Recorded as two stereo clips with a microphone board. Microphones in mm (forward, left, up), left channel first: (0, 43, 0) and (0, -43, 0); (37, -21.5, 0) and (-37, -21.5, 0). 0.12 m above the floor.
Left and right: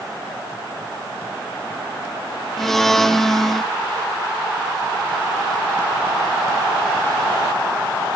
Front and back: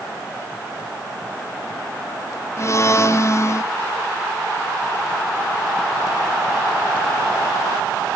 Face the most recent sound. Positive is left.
turn(degrees=5)